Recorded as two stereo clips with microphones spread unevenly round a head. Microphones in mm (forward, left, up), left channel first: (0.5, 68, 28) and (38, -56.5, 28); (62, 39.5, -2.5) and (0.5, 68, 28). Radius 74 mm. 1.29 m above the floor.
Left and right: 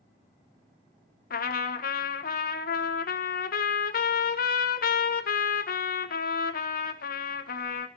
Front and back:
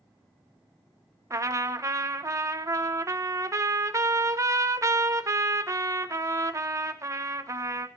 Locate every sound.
1.3 s a trumpet: 105° left, 1.4 m